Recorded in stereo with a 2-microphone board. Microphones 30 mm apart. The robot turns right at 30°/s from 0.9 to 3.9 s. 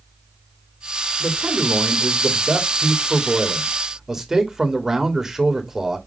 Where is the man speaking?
95° right, 2 m; by 6.0 s 15° right, 2 m.